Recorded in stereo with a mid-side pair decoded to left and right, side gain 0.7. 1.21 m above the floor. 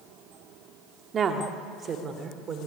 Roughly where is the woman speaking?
Ahead right.